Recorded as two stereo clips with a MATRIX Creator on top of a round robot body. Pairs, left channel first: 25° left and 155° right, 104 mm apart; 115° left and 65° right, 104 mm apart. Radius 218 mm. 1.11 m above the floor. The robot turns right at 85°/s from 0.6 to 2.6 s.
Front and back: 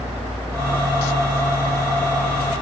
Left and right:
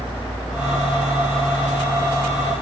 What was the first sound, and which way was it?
Only background noise.